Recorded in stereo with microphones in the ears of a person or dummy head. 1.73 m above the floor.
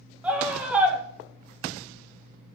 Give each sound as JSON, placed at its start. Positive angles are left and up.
{"t": 0.2, "sound": "a scream", "side_deg": -10, "distance_m": 1.3}